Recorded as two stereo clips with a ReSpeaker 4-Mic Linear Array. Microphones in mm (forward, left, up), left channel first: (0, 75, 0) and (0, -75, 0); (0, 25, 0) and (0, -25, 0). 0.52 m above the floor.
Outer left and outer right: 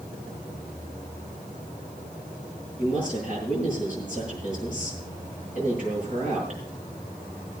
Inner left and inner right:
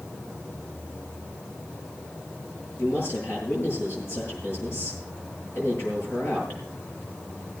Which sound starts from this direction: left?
A man speaking, at 2.8 s.